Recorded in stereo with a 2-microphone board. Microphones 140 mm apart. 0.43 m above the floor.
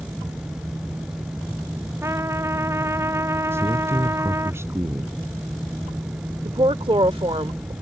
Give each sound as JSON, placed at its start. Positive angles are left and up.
{"t": 2.0, "sound": "a trumpet", "side_deg": -20}
{"t": 3.5, "sound": "a man speaking", "side_deg": -15}
{"t": 6.5, "sound": "a woman speaking", "side_deg": -40}